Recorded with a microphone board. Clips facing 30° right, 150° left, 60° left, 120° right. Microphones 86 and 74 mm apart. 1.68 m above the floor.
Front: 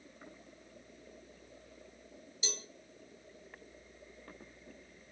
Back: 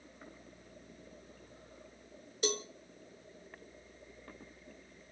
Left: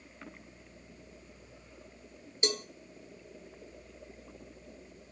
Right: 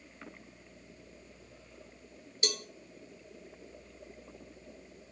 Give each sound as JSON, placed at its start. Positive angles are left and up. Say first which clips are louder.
{"t": 2.4, "sound": "a cowbell", "louder": "back 11 dB, left 4 dB", "azimuth_deg": 120, "distance_m": 0.9}